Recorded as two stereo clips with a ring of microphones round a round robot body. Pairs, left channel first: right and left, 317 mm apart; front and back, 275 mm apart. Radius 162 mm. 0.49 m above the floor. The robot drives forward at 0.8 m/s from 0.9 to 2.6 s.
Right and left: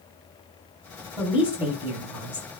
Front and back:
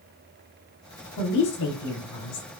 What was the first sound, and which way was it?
A woman speaking, 5° left.